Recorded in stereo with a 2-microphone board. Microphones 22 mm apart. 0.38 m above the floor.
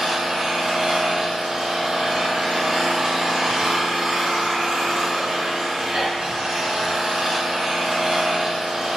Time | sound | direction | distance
0.0 | an engine running | 40° right (ahead or behind) | 1.6 m